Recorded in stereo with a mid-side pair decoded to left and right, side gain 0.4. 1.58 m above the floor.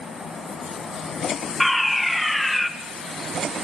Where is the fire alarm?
15° left, 3 m.